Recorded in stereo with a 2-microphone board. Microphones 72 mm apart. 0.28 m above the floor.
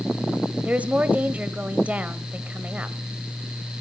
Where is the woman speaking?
20° right (ahead or behind), 1.1 m.